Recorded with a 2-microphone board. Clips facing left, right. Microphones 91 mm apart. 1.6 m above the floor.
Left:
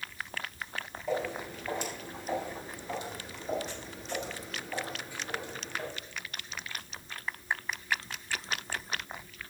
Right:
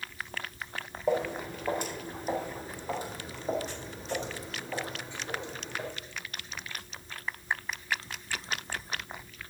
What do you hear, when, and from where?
1.1 s footsteps: 55° right (ahead or behind), 4.5 m; by 5.9 s 20° right (ahead or behind), 4 m